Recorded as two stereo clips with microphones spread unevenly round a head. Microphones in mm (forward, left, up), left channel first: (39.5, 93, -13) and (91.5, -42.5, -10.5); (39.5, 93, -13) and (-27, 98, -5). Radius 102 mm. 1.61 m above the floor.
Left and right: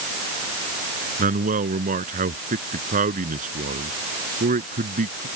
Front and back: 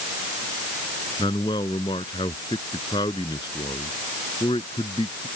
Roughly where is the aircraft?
I don't hear an aircraft.